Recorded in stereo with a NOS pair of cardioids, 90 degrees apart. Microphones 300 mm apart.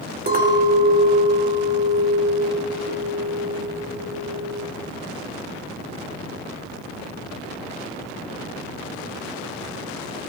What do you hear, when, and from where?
0.3 s a clink: 30° right, 3 m